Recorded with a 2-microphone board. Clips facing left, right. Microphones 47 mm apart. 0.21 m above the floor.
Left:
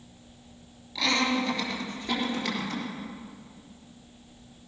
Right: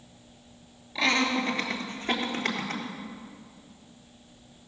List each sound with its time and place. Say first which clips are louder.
0.9 s laughter: right 1 dB; 30° right (ahead or behind), 3 m; by 2.8 s 45° right (ahead or behind), 3.5 m